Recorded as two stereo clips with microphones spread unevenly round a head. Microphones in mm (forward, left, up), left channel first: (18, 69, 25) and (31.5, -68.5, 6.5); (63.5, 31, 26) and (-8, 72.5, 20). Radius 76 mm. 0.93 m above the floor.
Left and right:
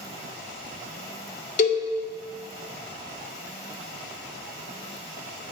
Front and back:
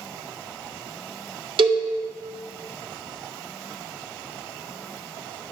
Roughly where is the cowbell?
Behind left.